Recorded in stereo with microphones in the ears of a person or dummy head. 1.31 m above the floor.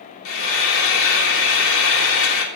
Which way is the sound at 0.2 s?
70° left (ahead or behind).